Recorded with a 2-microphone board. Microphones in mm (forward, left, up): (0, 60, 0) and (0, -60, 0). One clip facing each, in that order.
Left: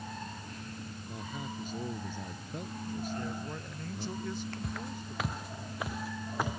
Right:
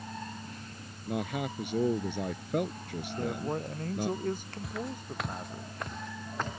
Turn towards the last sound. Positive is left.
turn(degrees=10)  # may be behind; listen again after turning